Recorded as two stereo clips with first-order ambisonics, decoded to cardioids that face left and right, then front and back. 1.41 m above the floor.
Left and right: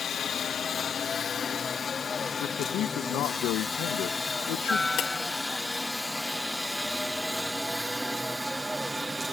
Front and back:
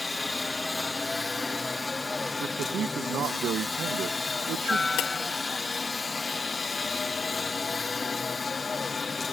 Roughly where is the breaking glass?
Ahead left.